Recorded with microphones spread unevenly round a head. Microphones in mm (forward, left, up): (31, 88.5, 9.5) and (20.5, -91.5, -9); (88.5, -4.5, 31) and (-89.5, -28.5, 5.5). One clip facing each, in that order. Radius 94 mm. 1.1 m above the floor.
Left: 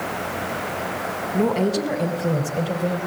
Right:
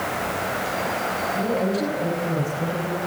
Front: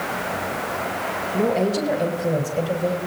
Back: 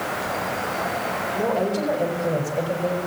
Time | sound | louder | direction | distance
1.3 | a woman speaking | left 4 dB, front 3 dB | 75° left | 3.5 m